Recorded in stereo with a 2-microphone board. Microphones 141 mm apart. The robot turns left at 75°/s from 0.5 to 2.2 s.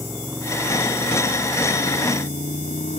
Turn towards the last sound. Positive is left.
turn(degrees=60)